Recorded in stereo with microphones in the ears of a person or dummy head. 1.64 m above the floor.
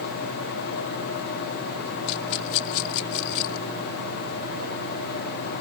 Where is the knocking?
No knocking in this recording.